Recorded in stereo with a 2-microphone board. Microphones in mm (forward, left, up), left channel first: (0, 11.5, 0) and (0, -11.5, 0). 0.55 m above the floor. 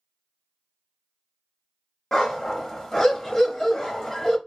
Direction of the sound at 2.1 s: 25° left (ahead or behind).